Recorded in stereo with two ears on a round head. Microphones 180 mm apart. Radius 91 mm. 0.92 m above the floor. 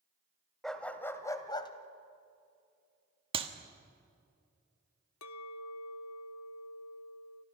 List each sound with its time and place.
0.6 s a dog barking: centre (ahead or behind), 1.5 m; by 1.7 s 25° left (ahead or behind), 1.6 m
3.3 s a clap: 30° right (ahead or behind), 1.5 m
5.2 s a clink: 80° left, 0.8 m